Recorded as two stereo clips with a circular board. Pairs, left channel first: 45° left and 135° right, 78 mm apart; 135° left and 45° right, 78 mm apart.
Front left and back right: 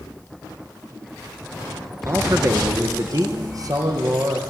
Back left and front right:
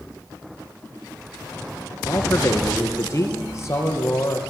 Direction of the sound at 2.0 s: 175° left.